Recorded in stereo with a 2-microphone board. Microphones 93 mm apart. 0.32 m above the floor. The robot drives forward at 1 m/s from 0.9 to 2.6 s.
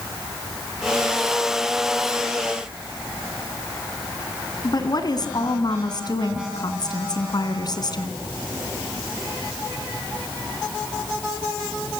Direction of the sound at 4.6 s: 50° left (ahead or behind).